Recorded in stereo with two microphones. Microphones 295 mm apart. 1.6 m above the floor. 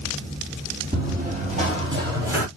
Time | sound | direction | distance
0.9 | running footsteps | 30° right (ahead or behind) | 2.5 m